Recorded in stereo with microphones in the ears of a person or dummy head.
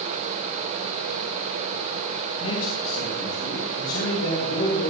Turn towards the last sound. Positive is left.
turn(degrees=85)